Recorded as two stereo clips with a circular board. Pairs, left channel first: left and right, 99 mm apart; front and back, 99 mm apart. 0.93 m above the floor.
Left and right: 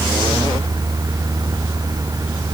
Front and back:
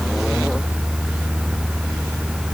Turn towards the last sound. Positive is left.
No sound to turn to.